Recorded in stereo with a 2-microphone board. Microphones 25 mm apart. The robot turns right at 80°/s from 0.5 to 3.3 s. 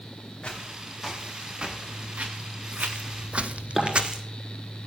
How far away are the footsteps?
About 4.5 m.